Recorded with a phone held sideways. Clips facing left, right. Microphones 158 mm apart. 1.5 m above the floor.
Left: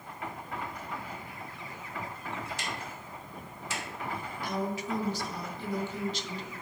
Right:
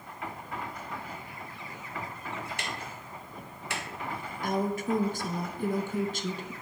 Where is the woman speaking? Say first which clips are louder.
Right 5 dB; 50° right (ahead or behind), 0.6 m.